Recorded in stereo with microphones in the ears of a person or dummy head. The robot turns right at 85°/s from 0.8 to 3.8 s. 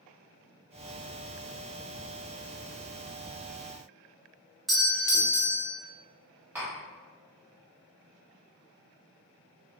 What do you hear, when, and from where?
4.7 s a doorbell: 5° right (ahead or behind), 0.6 m
6.5 s tapping: 5° right (ahead or behind), 2.0 m